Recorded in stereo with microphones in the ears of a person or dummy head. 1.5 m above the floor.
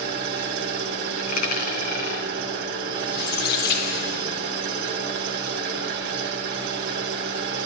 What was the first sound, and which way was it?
An engine running, 60° right (ahead or behind).